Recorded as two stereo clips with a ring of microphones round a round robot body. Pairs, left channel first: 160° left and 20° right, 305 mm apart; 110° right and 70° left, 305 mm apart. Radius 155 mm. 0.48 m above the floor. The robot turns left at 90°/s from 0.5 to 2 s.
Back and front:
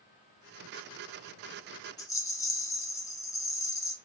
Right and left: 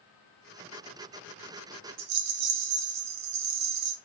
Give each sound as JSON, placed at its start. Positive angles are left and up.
{"t": 2.0, "sound": "a rattle", "azimuth_deg": 80, "distance_m": 0.5}